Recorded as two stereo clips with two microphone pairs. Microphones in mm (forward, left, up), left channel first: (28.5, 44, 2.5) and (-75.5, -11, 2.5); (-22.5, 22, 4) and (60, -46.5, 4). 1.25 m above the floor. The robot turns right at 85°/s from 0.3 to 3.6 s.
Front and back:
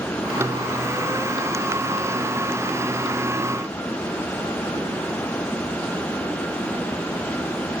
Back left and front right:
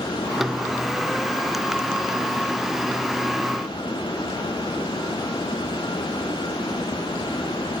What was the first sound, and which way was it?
Only background noise.